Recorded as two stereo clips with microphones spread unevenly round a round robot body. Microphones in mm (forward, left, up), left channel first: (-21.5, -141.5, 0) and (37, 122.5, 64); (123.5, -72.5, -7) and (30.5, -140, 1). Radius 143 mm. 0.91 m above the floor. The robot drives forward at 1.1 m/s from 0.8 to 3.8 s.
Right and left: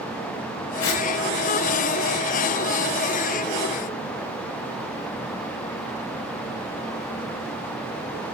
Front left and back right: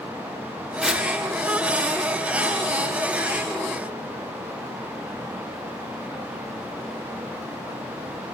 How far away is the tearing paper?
About 5 m.